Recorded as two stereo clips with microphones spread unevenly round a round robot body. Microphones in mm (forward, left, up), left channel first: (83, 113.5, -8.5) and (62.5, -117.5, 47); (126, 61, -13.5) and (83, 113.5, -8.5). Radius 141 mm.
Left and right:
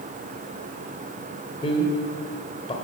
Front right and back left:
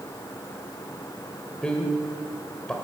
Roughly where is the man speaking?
Ahead left.